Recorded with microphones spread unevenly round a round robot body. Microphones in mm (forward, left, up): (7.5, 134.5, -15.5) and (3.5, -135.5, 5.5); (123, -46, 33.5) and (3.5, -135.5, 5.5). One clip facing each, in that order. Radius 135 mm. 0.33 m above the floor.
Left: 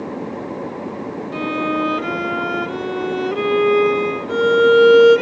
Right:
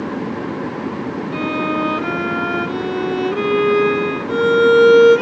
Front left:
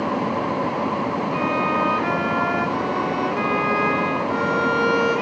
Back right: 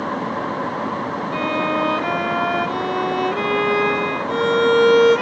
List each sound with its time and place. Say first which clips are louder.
1.3 s a violin: even, back right 4 dB; 175° left, 0.5 m